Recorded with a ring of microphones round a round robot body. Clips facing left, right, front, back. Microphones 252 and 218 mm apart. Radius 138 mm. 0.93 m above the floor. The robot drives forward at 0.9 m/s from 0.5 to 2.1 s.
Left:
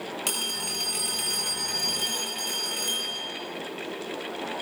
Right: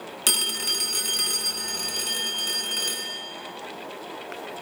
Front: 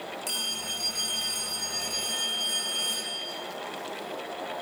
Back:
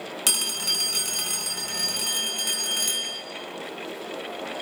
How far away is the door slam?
I don't hear a door slam.